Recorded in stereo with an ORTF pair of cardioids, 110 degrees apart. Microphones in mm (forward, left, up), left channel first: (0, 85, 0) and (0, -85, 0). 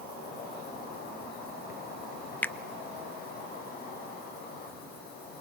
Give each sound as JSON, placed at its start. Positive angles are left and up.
{"t": 0.0, "sound": "an insect", "azimuth_deg": 65, "distance_m": 9.0}
{"t": 2.4, "sound": "a finger snap", "azimuth_deg": 10, "distance_m": 0.7}